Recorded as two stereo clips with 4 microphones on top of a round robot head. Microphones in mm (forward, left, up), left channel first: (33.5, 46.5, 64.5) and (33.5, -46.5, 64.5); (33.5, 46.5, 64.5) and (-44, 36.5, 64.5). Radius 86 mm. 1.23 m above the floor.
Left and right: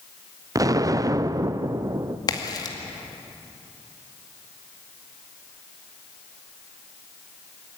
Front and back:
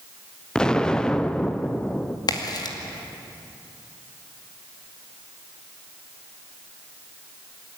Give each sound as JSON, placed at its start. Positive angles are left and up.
{"t": 0.6, "sound": "an explosion", "azimuth_deg": -70, "distance_m": 0.6}
{"t": 2.3, "sound": "a crack", "azimuth_deg": 40, "distance_m": 2.5}